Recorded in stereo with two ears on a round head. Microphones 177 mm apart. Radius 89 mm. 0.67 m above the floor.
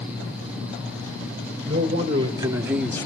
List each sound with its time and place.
1.7 s a man speaking: 30° right (ahead or behind), 2.5 m; by 3.1 s 20° left (ahead or behind), 0.7 m